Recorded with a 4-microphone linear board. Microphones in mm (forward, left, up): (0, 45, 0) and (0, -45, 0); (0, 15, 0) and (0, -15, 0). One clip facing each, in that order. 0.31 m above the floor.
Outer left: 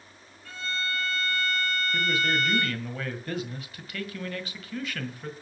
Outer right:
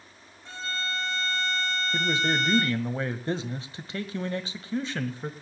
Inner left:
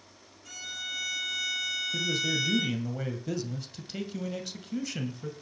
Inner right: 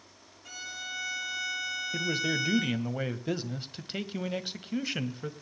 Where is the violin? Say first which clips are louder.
Even, inner left 2 dB; 20° right (ahead or behind), 6 m.